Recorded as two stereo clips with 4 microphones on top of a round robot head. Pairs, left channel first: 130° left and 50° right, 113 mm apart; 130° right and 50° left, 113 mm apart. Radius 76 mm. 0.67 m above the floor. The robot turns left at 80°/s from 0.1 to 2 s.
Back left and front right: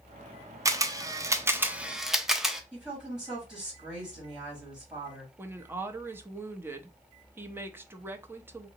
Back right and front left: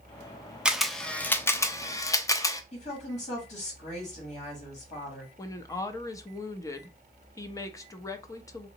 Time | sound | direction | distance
0.7 | a camera shutter | 25° right | 0.6 m
2.7 | a woman speaking | 125° right | 2.5 m
5.4 | a woman speaking | 105° right | 0.6 m